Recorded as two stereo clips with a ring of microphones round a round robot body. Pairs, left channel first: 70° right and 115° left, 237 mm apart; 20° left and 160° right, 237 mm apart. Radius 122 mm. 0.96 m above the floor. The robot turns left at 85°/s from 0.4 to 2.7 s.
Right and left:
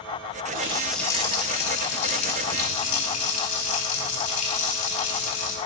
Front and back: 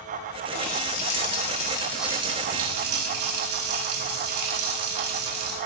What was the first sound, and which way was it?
A running tap, 60° left.